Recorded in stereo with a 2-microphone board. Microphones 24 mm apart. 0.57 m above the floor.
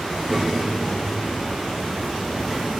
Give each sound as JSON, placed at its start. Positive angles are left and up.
{"t": 0.1, "sound": "a child speaking", "side_deg": 5, "distance_m": 4.0}